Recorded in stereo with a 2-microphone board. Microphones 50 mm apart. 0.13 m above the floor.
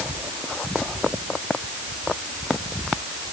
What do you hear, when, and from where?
Only background noise.